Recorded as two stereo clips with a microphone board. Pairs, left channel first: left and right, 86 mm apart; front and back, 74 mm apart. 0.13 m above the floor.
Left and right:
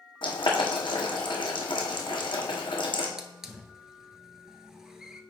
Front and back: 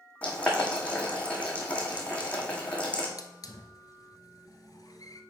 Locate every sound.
0.2 s boiling: 70° left, 2 m
3.2 s a hiss: 5° right, 0.8 m